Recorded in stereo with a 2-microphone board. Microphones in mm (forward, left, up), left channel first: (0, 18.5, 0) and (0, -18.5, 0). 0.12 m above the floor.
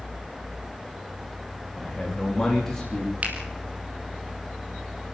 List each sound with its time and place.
1.8 s a man speaking: 10° left (ahead or behind), 9.5 m
3.2 s a finger snap: 40° right (ahead or behind), 4 m